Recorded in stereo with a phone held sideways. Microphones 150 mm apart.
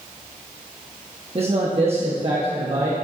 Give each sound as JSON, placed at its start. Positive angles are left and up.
{"t": 1.4, "sound": "a man speaking", "side_deg": -40, "distance_m": 1.0}